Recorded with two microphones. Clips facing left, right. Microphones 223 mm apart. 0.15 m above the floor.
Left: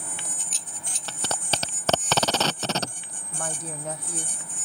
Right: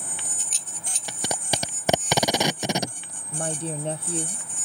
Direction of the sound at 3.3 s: 30° right (ahead or behind).